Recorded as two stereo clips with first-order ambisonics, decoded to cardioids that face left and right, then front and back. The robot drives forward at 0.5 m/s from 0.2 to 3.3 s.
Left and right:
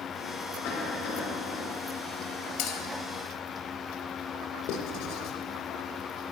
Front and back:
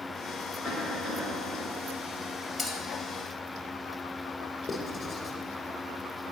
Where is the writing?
75° left, 2 m.